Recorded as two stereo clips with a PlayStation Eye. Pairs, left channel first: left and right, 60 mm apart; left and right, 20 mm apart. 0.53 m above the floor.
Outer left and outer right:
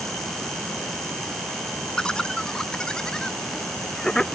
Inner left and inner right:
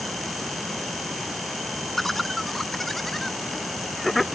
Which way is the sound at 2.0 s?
15° left (ahead or behind).